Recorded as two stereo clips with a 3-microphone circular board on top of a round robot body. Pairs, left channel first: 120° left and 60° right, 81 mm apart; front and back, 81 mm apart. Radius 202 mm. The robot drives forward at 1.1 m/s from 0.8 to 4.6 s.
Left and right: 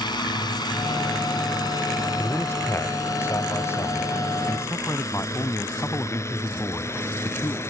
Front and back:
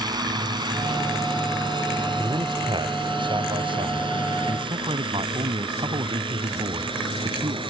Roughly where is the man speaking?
Behind.